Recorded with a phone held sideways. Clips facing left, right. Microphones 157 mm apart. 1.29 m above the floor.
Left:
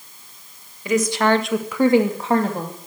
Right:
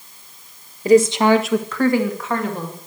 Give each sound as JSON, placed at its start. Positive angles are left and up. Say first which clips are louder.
{"t": 0.8, "sound": "a woman speaking", "louder": "right 6 dB", "side_deg": -35, "distance_m": 1.4}